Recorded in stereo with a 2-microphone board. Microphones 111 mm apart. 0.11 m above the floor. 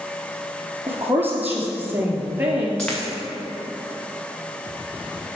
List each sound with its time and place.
0.9 s a woman speaking: 20° right (ahead or behind), 1.8 m
2.8 s a dropped coin: 10° left (ahead or behind), 2.5 m